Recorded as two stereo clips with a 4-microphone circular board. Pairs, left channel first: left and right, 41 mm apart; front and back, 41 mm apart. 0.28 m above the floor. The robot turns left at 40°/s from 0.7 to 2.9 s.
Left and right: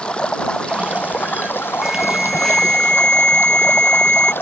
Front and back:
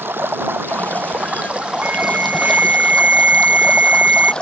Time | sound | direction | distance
0.0 | running water | 155° left | ?
1.8 | an alarm | 170° right | ?